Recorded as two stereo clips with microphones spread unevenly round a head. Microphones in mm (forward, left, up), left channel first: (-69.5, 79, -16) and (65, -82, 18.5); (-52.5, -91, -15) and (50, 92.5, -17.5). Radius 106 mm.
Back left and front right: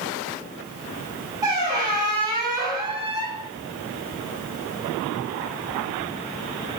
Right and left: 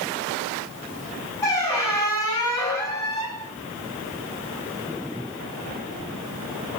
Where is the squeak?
65° right, 1.0 m.